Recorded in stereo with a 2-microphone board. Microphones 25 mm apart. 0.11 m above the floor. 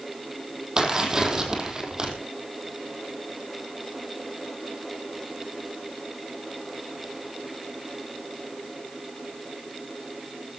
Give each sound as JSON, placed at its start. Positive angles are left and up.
{"t": 0.8, "sound": "tearing paper", "side_deg": -25, "distance_m": 4.0}